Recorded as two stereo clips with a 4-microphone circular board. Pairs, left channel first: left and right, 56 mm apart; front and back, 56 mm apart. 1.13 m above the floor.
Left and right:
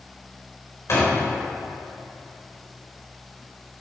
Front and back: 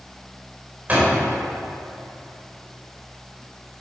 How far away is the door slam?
About 4 m.